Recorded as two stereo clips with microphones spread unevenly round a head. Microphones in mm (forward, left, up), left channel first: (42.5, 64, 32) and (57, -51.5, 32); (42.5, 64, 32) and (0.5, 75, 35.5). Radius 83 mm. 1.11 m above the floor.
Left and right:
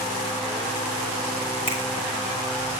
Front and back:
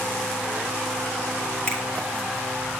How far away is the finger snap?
About 5 m.